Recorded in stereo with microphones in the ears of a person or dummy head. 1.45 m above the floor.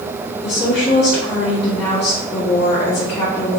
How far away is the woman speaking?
About 2 m.